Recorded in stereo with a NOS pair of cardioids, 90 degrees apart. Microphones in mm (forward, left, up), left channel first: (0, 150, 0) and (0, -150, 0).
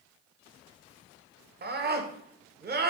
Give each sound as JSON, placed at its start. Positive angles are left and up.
{"t": 1.6, "sound": "a scream", "azimuth_deg": -35, "distance_m": 0.9}